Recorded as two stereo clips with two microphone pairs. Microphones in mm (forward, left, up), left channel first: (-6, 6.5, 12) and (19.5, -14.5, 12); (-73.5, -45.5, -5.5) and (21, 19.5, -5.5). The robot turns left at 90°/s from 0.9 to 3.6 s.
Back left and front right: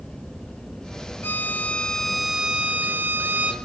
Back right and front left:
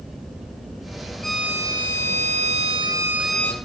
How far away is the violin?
About 2.5 m.